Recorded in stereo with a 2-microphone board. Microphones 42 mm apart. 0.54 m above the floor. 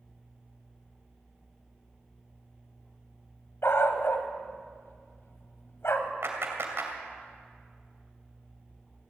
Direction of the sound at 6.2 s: 70° right (ahead or behind).